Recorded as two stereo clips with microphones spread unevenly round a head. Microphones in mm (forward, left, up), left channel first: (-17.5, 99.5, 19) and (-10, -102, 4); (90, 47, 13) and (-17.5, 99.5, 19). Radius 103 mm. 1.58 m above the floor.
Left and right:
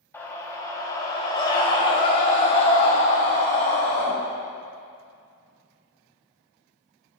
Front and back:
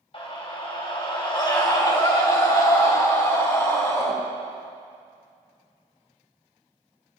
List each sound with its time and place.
0.1 s a scream: 10° left, 3 m; by 4.1 s 35° left, 5 m